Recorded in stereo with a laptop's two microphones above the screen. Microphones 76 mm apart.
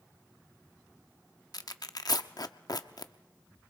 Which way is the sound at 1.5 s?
55° left (ahead or behind).